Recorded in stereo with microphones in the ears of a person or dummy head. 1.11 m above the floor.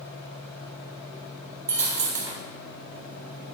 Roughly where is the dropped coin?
Centre.